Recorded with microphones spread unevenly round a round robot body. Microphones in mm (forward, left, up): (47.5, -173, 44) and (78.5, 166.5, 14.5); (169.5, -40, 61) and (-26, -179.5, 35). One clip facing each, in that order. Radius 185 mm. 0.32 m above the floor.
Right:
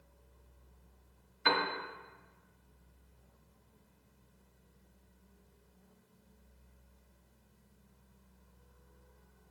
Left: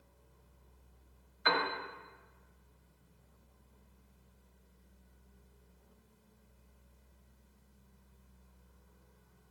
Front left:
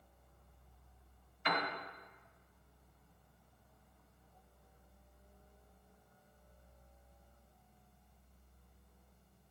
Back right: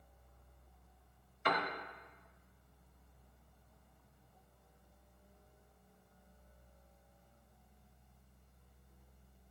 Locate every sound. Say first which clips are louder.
1.4 s a piano: right 1 dB, back right 2 dB; 145° right, 0.8 m